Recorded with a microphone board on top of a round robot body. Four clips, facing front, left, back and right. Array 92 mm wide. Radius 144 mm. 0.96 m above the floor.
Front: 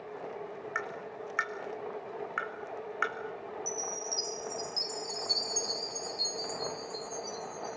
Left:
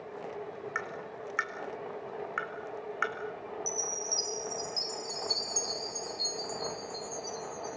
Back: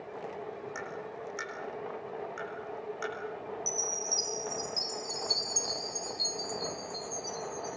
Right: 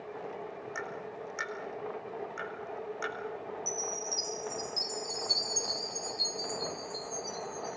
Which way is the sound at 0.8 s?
45° left.